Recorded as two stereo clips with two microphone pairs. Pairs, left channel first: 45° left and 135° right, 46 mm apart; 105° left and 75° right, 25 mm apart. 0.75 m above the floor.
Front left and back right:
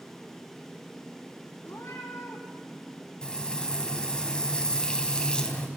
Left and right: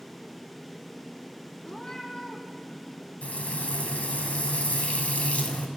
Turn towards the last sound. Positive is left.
turn(degrees=115)